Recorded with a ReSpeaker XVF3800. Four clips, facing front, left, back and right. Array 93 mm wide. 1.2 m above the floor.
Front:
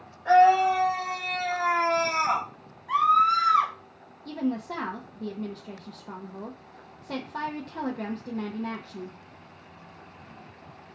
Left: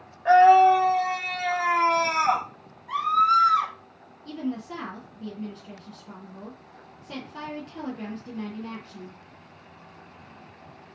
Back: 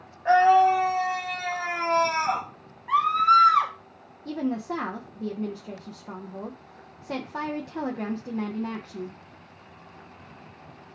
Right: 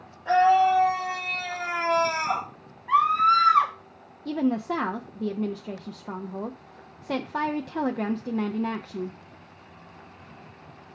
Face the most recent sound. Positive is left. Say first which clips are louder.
# right 7 dB, back 1 dB
turn(degrees=-100)